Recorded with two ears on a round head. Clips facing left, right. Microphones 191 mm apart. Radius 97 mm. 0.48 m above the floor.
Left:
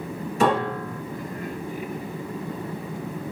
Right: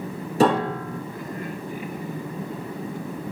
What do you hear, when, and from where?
0.4 s a piano: 30° right (ahead or behind), 2 m